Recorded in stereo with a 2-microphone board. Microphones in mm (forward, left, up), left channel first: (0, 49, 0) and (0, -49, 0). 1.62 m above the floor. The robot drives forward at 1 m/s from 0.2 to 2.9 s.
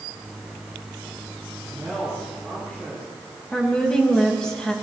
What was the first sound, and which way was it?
A woman speaking, 10° left (ahead or behind).